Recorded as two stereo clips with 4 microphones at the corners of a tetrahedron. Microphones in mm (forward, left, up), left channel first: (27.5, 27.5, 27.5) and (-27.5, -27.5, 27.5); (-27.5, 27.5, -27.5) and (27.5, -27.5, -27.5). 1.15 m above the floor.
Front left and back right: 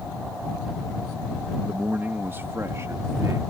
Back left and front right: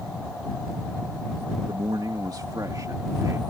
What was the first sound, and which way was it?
A man speaking, 60° right.